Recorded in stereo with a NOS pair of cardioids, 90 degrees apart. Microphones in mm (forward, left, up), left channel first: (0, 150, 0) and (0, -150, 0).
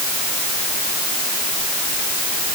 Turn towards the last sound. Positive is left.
No sound to turn to.